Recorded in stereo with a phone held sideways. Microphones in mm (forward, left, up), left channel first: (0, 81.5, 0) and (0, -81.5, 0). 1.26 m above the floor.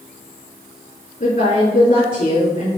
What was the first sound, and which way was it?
A woman speaking, 55° left (ahead or behind).